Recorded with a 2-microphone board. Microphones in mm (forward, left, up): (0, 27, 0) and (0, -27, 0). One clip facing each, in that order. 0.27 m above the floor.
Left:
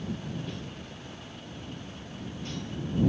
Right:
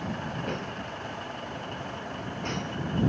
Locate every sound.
0.0 s a vehicle: 50° right (ahead or behind)